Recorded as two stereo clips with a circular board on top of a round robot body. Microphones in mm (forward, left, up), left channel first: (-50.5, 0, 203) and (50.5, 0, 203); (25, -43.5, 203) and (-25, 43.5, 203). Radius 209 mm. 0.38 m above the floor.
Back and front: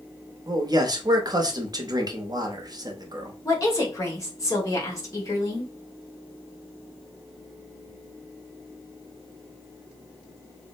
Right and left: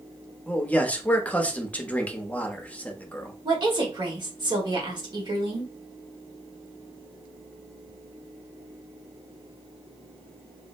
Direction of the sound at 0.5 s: 10° left.